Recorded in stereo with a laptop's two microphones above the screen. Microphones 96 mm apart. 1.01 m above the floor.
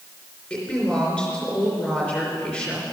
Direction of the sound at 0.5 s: 15° left (ahead or behind).